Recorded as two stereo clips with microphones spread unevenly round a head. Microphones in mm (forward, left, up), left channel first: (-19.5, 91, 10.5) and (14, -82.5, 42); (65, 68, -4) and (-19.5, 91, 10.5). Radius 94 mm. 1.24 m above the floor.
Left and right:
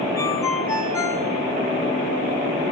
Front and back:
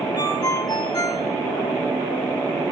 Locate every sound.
0.2 s a ringtone: 25° left, 3 m